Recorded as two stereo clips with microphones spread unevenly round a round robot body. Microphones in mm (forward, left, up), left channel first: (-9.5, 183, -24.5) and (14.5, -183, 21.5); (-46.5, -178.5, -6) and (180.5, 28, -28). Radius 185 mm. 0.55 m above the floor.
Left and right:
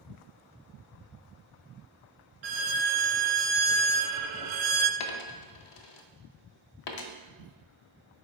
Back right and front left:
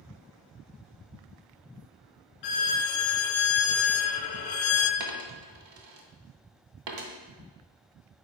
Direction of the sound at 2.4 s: 120° right.